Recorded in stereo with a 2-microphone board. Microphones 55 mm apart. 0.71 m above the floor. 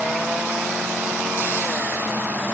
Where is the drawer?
I don't hear a drawer.